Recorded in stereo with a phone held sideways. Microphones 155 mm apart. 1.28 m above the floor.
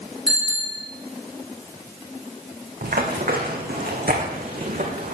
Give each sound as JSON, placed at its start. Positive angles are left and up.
{"t": 0.3, "sound": "a bicycle bell", "side_deg": -5, "distance_m": 4.0}
{"t": 2.8, "sound": "running footsteps", "side_deg": -65, "distance_m": 3.0}